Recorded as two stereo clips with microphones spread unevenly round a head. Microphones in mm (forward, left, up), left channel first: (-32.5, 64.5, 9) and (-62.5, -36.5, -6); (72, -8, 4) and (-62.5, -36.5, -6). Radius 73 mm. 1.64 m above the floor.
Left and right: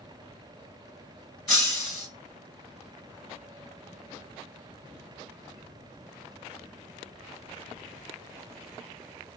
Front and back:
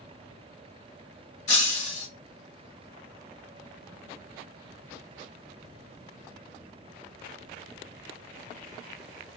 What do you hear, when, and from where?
1.5 s breaking glass: 10° right, 2.5 m